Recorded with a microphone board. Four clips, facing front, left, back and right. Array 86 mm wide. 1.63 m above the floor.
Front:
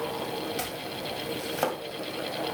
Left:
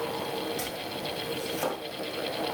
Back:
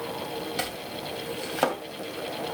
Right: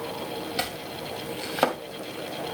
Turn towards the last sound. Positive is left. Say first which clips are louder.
# right 2 dB, back 1 dB
turn(degrees=-110)